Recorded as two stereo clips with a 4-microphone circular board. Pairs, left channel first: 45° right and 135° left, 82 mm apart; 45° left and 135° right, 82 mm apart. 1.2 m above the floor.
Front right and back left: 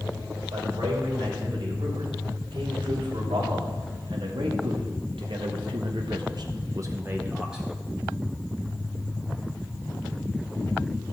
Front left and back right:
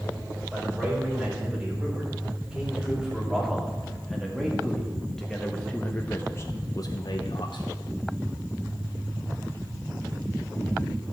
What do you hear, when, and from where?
0.5 s a man speaking: 150° left, 4.5 m; by 7.7 s 50° left, 0.9 m